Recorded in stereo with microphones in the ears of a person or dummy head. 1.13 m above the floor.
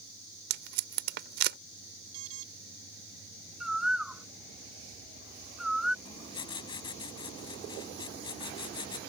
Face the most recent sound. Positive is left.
turn(degrees=30)  # may be behind; listen again after turning